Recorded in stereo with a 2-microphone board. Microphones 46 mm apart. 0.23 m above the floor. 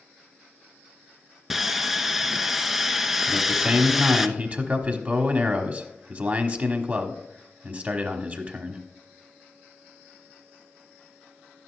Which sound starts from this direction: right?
A man speaking, at 3.3 s.